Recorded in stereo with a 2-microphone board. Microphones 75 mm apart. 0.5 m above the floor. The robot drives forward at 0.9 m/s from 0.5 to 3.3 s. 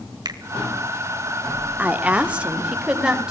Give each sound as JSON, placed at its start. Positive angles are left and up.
{"t": 0.2, "sound": "a finger snap", "side_deg": -65, "distance_m": 1.6}
{"t": 1.8, "sound": "a woman speaking", "side_deg": -20, "distance_m": 1.1}